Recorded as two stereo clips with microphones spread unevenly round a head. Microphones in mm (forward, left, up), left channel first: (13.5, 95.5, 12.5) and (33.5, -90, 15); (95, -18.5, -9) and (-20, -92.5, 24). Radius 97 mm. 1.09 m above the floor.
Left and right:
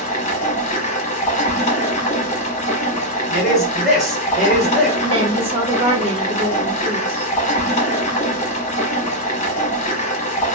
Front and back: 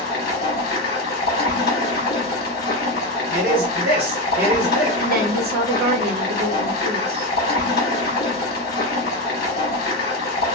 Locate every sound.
0.0 s running water: 45° left, 0.9 m
3.3 s a man speaking: 175° right, 1.1 m
5.0 s a woman speaking: 145° right, 0.6 m